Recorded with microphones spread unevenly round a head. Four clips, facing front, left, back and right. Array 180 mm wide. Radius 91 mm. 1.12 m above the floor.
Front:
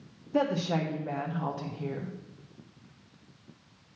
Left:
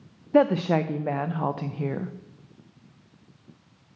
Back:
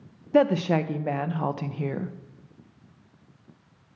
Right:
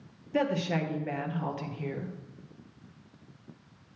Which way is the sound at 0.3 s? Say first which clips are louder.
Left 9 dB, back 7 dB; 125° left.